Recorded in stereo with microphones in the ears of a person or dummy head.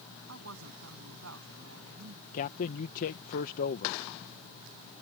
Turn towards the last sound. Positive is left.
turn(degrees=50)  # may be behind; listen again after turning